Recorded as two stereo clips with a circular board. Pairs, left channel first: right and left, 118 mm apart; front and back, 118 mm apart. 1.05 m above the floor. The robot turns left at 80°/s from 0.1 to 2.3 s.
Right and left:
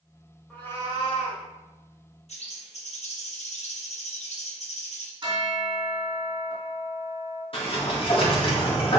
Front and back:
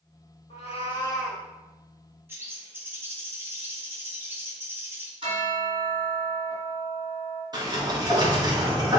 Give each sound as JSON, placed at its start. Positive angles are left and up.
{"t": 0.5, "sound": "a cat meowing", "azimuth_deg": -5, "distance_m": 1.9}
{"t": 2.3, "sound": "a bird", "azimuth_deg": -110, "distance_m": 1.4}
{"t": 5.2, "sound": "a bell", "azimuth_deg": 140, "distance_m": 3.5}
{"t": 7.5, "sound": "a sliding door", "azimuth_deg": -125, "distance_m": 1.7}